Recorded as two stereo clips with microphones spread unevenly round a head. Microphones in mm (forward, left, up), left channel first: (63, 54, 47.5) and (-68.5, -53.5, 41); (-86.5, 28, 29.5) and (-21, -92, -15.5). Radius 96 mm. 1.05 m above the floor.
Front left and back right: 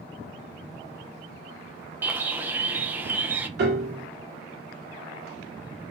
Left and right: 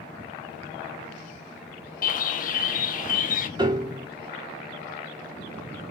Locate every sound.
2.0 s a bird: 145° left, 0.7 m
3.6 s a piano: 115° right, 1.9 m